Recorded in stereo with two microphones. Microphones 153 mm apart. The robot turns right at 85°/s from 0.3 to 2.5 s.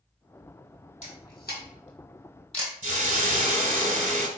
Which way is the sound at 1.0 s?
45° left (ahead or behind).